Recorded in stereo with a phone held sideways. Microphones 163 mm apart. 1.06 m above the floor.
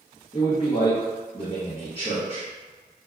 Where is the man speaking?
35° left (ahead or behind), 0.7 m.